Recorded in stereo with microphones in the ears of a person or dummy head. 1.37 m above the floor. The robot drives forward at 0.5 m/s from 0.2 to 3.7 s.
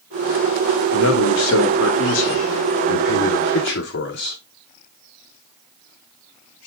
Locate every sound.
0.9 s a man speaking: 85° left, 3 m; by 4.4 s 60° left (ahead or behind), 3 m